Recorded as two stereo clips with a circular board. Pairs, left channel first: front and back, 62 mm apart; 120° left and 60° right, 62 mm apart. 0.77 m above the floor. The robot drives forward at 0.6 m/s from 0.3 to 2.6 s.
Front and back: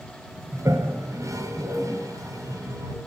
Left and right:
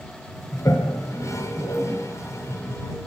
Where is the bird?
No bird in this recording.